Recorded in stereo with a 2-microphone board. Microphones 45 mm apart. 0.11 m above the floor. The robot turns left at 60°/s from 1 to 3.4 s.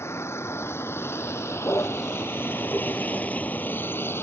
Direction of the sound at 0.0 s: 70° left (ahead or behind).